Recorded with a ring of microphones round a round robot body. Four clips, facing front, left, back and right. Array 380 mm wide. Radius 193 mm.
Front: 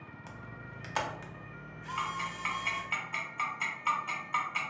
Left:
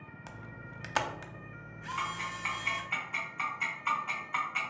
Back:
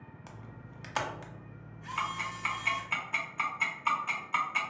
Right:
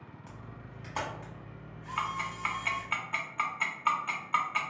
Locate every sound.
0.3 s a camera shutter: 90° left, 0.5 m
2.0 s ticking: 100° right, 0.7 m